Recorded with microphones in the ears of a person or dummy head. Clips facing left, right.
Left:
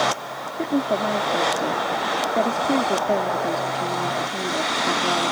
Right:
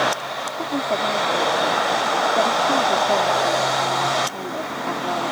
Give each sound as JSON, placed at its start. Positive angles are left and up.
{"t": 0.6, "sound": "a woman speaking", "side_deg": 20}